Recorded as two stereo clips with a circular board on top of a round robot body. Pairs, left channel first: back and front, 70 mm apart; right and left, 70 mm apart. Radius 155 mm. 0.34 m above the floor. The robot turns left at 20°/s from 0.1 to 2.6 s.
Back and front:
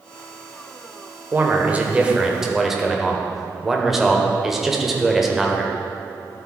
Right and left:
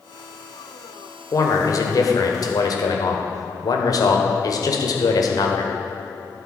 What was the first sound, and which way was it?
A man speaking, 60° right.